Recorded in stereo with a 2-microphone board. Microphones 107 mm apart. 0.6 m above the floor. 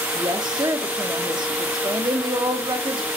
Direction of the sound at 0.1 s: 40° right (ahead or behind).